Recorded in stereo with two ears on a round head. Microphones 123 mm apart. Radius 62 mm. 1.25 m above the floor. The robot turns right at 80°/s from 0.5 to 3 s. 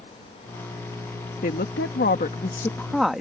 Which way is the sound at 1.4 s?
55° left.